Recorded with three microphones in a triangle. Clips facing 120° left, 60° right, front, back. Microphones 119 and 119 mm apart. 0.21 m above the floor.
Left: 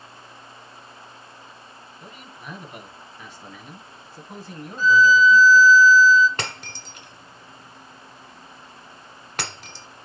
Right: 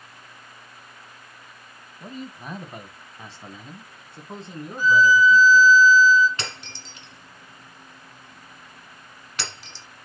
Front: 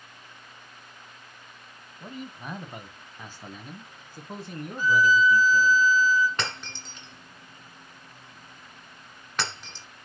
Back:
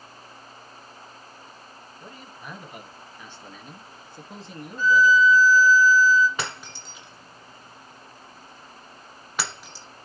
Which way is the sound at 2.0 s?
60° right.